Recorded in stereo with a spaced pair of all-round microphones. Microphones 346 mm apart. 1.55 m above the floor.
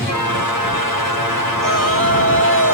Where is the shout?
80° right.